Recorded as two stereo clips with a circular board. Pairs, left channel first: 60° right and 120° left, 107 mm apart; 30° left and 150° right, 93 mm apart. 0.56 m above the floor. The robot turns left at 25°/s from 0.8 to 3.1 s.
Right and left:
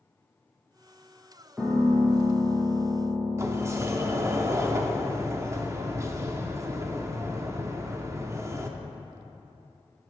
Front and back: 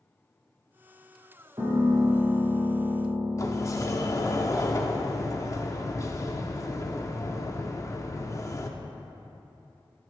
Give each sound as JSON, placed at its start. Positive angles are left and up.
{"t": 1.6, "sound": "a piano", "azimuth_deg": -160, "distance_m": 1.5}
{"t": 3.4, "sound": "a sliding door", "azimuth_deg": 65, "distance_m": 0.6}